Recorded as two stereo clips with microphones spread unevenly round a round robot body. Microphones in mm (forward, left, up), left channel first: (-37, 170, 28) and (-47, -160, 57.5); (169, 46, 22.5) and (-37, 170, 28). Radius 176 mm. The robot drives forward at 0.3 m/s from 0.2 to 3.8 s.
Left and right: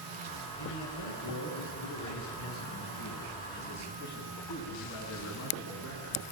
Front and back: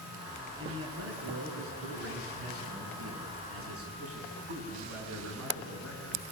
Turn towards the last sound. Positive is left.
turn(degrees=130)